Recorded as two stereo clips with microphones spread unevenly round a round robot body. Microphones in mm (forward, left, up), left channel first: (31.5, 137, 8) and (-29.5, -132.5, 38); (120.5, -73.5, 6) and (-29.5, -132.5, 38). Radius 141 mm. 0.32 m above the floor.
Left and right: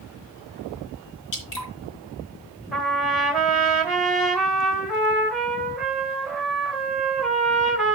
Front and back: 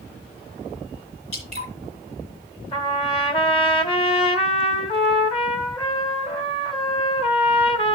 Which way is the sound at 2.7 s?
10° right.